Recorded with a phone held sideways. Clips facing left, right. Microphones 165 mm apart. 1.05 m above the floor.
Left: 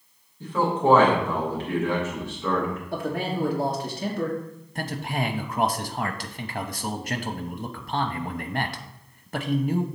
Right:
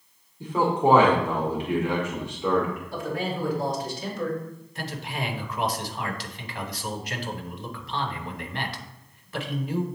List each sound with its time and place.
0.4 s a man speaking: 15° right (ahead or behind), 2 m
2.9 s a man speaking: 60° left (ahead or behind), 1.3 m
4.8 s a man speaking: 50° left (ahead or behind), 0.9 m